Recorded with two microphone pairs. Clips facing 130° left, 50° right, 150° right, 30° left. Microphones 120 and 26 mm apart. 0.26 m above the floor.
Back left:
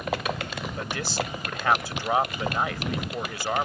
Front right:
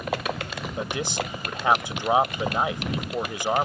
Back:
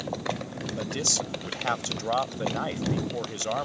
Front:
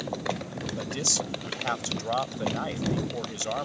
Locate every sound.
0.8 s a man speaking: 75° right